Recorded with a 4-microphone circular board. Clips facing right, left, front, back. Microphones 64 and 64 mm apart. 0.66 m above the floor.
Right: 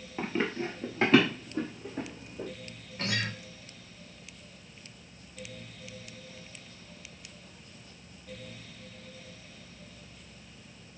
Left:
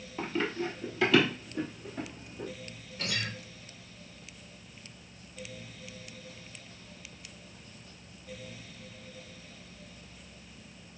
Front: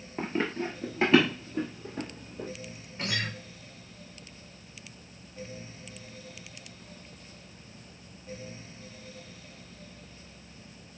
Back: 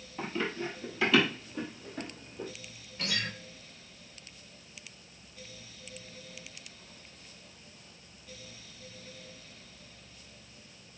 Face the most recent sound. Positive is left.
turn(degrees=-50)